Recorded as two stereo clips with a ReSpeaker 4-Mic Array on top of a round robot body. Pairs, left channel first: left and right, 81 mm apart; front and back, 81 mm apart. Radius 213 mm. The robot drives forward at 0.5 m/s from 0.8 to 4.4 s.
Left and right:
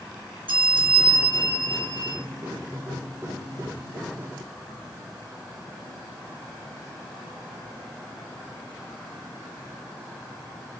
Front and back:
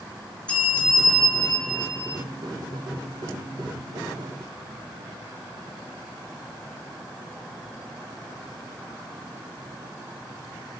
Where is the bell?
75° right, 1.5 m; by 2.2 s 105° right, 1.5 m.